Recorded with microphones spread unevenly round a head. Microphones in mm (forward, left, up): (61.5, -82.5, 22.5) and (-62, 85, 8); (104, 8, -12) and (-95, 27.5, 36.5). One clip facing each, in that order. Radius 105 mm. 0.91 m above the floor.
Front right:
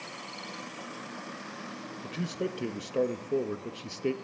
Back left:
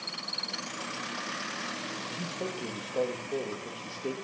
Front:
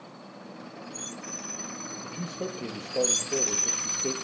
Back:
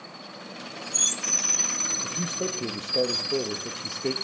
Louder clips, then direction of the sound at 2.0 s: Front right 5 dB, back 4 dB; 110° right.